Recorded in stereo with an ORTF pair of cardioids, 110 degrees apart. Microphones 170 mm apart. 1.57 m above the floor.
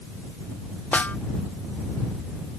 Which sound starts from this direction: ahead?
A snare drum, at 0.9 s.